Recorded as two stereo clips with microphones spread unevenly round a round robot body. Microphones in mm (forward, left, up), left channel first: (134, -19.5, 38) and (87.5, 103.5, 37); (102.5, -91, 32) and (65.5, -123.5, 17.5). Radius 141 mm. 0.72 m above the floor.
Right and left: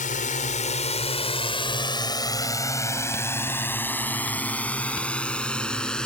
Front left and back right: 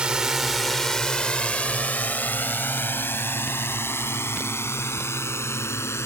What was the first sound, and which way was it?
A drone, 70° right.